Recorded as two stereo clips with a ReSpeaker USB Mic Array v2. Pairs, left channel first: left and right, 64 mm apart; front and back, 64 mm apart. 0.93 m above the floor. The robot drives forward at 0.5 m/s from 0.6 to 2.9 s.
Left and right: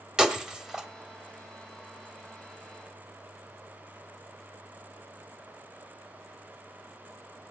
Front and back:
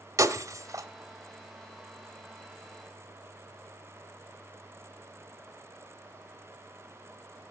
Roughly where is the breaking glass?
Behind.